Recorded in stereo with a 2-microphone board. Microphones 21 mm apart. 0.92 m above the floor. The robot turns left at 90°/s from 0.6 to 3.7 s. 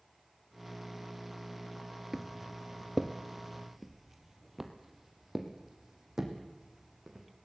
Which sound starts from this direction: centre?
Footsteps, at 2.1 s.